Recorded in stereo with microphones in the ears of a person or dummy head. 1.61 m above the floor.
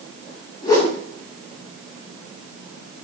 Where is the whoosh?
20° left (ahead or behind), 0.7 m.